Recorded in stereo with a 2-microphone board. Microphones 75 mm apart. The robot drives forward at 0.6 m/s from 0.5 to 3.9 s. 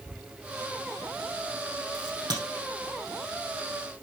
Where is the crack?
60° right (ahead or behind), 3.5 m; by 2.4 s 65° right (ahead or behind), 3.5 m.